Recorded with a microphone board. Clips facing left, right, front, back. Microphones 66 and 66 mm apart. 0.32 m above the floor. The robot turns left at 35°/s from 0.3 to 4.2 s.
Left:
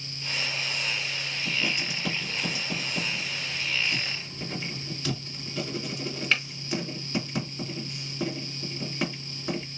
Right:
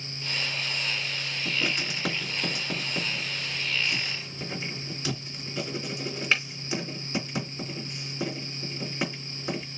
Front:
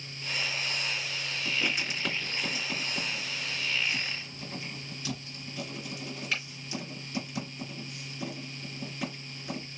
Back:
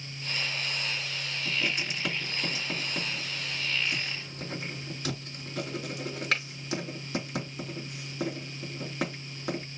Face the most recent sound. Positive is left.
turn(degrees=-170)